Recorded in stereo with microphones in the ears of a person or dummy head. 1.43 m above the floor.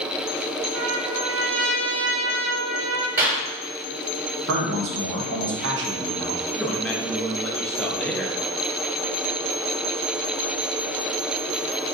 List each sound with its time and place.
0.7 s a trumpet: 75° right (ahead or behind), 0.7 m
3.2 s a clap: 15° right (ahead or behind), 1.8 m
4.5 s a man speaking: 65° right (ahead or behind), 1.1 m
6.5 s a man speaking: 5° left (ahead or behind), 0.9 m